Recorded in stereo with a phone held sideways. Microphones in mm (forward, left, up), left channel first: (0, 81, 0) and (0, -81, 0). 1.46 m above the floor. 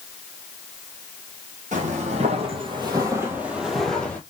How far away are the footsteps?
About 2 m.